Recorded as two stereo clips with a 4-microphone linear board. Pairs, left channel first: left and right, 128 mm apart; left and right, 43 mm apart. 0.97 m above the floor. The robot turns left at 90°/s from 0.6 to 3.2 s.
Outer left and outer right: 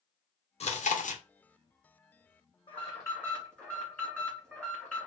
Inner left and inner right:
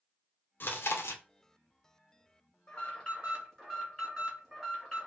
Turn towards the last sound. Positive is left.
turn(degrees=10)